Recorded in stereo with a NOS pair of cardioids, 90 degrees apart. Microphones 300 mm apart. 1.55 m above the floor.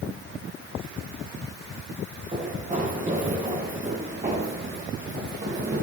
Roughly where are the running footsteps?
Ahead right.